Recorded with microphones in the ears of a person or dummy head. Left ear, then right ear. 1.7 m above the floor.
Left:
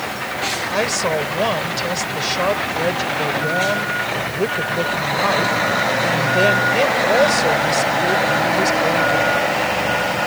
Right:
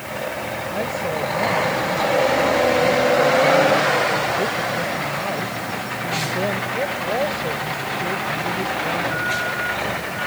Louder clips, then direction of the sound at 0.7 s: Left 5 dB; 60° left (ahead or behind).